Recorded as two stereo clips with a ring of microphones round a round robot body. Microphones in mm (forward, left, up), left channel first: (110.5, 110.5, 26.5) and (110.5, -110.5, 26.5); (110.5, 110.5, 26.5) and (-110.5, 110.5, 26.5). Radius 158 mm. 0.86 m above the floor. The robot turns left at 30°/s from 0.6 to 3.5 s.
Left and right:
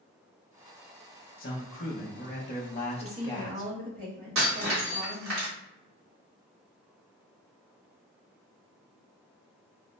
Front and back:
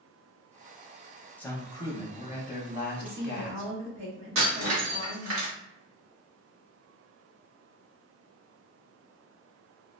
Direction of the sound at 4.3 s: 135° right.